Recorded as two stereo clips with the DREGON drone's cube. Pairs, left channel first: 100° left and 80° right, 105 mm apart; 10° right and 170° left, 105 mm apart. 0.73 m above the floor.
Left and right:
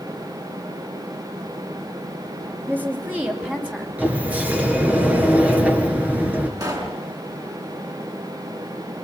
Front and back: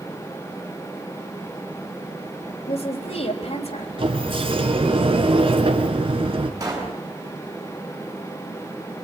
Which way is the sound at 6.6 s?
130° right.